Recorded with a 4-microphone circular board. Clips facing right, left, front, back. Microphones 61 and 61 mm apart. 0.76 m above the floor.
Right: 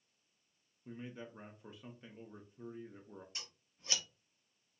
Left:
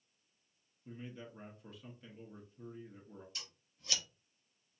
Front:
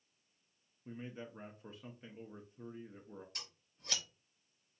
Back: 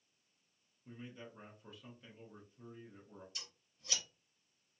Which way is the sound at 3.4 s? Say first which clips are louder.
Even, front 2 dB; 30° right.